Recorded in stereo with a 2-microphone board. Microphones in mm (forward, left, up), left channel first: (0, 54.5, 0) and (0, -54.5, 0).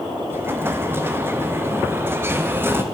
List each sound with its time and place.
0.3 s an explosion: 20° right (ahead or behind), 0.5 m